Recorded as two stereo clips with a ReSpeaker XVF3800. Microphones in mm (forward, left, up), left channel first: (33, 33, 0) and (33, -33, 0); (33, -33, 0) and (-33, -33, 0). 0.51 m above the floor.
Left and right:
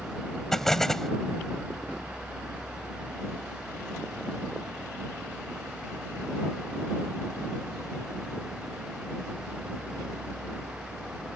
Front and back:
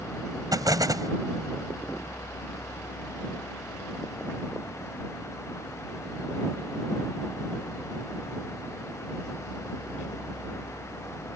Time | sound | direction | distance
0.5 | an explosion | 175° left | ?